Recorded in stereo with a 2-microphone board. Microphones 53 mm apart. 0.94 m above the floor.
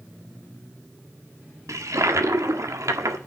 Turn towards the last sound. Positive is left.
turn(degrees=-75)  # may be behind; listen again after turning